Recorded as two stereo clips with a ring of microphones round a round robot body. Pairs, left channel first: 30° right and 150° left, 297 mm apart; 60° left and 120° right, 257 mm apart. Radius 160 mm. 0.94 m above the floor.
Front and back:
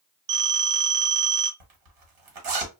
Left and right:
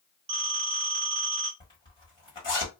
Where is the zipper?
135° left, 1.3 m.